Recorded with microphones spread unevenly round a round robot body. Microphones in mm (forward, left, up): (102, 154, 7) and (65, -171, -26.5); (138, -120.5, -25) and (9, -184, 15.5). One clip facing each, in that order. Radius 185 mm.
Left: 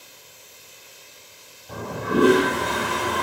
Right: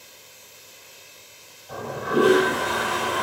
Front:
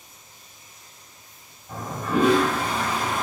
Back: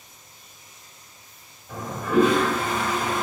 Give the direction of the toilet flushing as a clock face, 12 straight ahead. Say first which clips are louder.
Even, back 3 dB; 8 o'clock.